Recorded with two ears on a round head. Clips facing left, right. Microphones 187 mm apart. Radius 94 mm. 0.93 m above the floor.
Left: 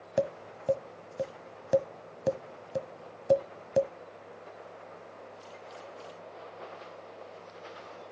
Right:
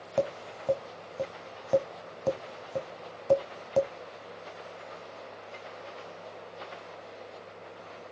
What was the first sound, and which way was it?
Tapping, 15° left (ahead or behind).